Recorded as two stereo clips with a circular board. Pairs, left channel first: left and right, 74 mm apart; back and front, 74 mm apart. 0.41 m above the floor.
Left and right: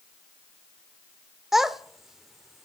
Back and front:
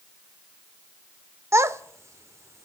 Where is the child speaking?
10° right, 0.6 m.